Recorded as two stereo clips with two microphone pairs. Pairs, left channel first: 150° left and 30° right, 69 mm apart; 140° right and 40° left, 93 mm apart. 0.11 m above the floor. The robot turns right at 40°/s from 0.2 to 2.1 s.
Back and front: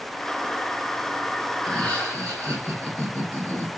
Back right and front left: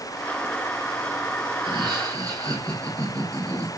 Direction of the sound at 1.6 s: 65° left.